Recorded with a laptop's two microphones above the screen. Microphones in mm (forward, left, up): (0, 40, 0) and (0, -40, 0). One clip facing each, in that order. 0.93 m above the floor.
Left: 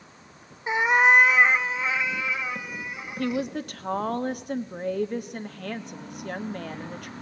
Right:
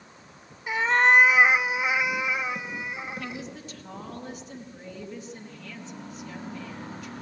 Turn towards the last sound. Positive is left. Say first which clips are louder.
# left 9 dB
turn(degrees=60)  # may be behind; listen again after turning